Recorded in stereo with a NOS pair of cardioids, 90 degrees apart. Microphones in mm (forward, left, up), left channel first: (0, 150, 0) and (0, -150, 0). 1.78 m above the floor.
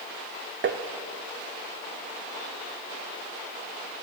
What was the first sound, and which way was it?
Tapping, 40° right.